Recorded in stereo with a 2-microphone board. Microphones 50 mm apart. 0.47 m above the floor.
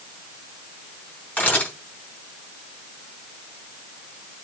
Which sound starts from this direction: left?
A camera shutter, at 1.4 s.